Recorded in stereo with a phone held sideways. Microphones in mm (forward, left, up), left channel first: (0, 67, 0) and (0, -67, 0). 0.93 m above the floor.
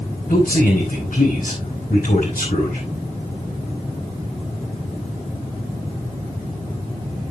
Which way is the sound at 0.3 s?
85° left.